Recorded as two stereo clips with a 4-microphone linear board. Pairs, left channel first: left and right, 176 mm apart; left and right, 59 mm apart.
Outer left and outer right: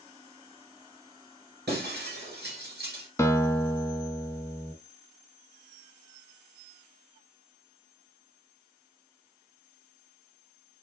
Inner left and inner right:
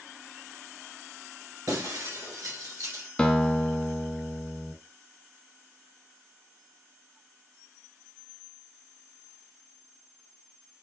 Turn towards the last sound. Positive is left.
turn(degrees=15)  # may be behind; listen again after turning